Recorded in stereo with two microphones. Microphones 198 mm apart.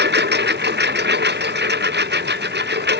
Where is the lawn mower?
60° right (ahead or behind).